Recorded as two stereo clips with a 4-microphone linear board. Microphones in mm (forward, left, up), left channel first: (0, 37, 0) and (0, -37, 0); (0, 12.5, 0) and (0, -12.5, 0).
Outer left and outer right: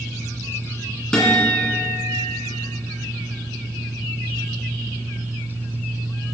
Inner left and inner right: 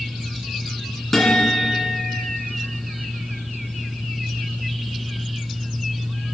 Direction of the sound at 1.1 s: 10° left (ahead or behind).